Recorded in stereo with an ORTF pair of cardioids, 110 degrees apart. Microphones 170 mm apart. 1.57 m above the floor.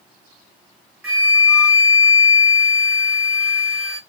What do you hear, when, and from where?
1.0 s a flute: 10° right, 2 m